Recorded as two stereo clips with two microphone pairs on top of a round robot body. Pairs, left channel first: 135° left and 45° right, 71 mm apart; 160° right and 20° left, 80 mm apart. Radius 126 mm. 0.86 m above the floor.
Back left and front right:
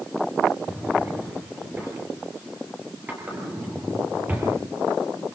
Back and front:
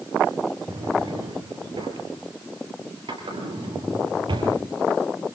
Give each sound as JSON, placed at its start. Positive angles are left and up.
{"t": 0.7, "sound": "a drawer", "azimuth_deg": 25, "distance_m": 6.0}